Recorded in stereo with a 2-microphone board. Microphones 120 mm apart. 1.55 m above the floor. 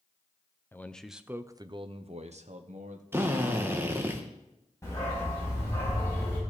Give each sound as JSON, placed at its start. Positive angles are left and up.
{"t": 0.7, "sound": "a man speaking", "side_deg": 20, "distance_m": 0.7}
{"t": 3.1, "sound": "a drill", "side_deg": -15, "distance_m": 1.3}
{"t": 4.8, "sound": "a dog barking", "side_deg": 25, "distance_m": 5.5}